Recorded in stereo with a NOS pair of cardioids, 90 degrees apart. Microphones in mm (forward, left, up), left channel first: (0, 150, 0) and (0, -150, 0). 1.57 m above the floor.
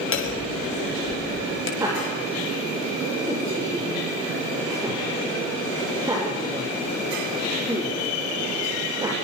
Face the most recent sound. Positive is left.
turn(degrees=-10)